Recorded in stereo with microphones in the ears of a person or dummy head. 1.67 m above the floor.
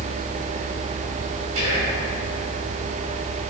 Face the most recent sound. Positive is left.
turn(degrees=-70)  # may be behind; listen again after turning